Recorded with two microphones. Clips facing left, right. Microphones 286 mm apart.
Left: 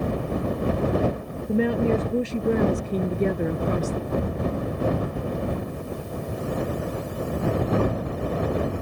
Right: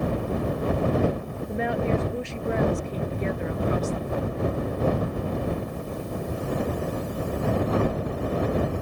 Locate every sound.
1.5 s a woman speaking: 40° left (ahead or behind); by 4.0 s 55° left (ahead or behind)
4.1 s a thud: 45° left (ahead or behind)